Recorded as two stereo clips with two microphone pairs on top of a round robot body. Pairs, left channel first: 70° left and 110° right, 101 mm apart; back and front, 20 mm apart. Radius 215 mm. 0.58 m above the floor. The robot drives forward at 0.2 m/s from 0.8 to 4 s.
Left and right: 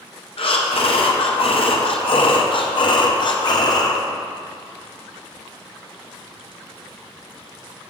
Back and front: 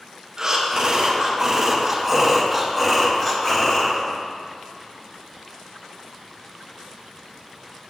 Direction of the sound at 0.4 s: 65° left.